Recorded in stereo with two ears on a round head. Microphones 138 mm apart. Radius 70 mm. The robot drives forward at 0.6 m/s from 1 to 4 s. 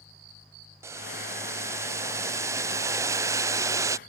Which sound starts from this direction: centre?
Boiling, at 0.8 s.